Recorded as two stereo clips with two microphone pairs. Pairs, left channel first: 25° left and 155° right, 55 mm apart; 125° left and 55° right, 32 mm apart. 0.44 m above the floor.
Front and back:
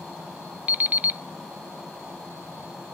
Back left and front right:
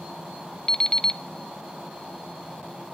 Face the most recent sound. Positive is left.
turn(degrees=175)